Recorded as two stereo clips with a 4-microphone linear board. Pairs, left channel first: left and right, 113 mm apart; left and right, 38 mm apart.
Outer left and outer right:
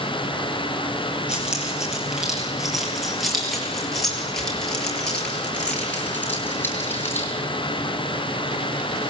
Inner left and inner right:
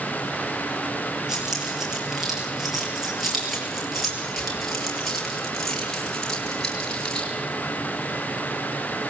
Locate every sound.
1.3 s keys jangling: 10° right (ahead or behind), 8.5 m; by 7.3 s 20° left (ahead or behind), 6.5 m